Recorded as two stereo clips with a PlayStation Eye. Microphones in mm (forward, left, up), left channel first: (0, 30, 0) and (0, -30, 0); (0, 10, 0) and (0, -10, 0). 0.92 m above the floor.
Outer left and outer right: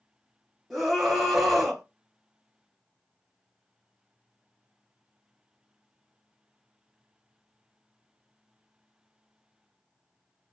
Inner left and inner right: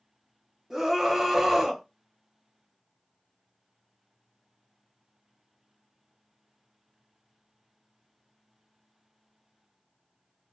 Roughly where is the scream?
Centre.